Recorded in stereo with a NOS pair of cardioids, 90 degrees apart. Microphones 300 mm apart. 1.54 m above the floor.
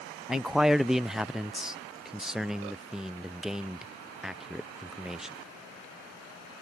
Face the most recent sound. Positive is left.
turn(degrees=0)